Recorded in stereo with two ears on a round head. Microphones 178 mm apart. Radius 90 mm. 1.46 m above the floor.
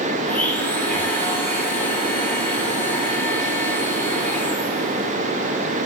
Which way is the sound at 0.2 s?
10° left (ahead or behind).